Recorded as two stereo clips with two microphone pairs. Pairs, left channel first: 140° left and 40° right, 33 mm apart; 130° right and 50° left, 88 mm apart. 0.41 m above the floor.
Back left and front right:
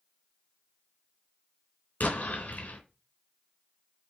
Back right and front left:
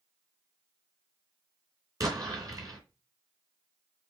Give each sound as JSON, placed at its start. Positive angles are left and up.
{"t": 2.0, "sound": "an explosion", "azimuth_deg": 95, "distance_m": 3.0}